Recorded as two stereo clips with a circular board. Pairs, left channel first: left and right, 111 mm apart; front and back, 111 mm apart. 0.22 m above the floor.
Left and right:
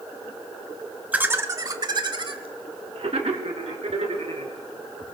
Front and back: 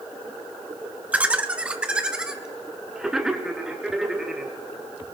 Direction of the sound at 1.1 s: 135° right.